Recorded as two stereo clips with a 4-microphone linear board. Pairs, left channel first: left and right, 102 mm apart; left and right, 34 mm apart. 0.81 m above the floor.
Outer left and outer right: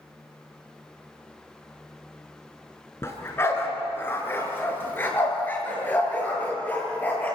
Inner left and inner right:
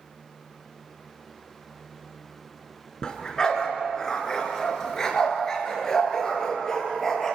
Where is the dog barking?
25° left (ahead or behind), 3.5 m; by 7.4 s 15° left (ahead or behind), 5.5 m.